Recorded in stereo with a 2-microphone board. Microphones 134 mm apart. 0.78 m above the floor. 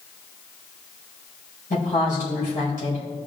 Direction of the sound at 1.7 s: 80° left.